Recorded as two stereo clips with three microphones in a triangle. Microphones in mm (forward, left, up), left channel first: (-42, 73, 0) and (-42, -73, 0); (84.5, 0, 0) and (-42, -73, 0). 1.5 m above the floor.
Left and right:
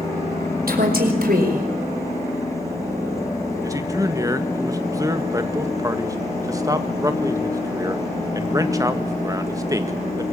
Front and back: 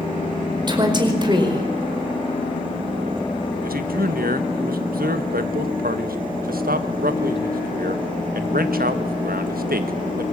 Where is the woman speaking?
90° right, 5 m.